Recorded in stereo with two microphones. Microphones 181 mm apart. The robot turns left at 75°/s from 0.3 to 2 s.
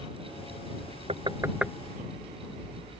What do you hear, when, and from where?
1.1 s knocking: 35° right (ahead or behind); by 1.7 s centre (ahead or behind)